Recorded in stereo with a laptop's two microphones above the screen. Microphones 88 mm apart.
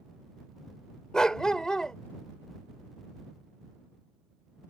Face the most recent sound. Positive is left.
turn(degrees=10)  # may be behind; listen again after turning